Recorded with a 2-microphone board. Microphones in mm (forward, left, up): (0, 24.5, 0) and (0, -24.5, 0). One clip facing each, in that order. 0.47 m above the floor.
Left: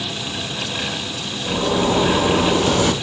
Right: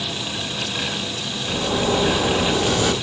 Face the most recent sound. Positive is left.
turn(degrees=50)  # may be behind; listen again after turning